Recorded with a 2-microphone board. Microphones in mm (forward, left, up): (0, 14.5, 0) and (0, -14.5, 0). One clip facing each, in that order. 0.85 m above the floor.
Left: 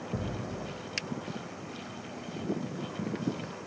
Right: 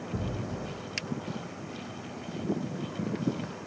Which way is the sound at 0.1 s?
65° left (ahead or behind).